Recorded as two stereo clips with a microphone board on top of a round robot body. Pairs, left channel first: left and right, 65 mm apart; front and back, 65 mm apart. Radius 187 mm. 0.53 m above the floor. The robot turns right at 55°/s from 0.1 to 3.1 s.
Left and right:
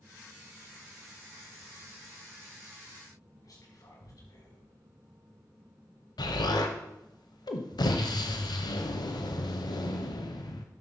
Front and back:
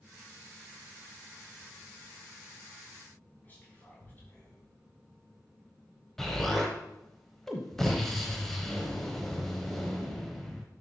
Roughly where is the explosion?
Left.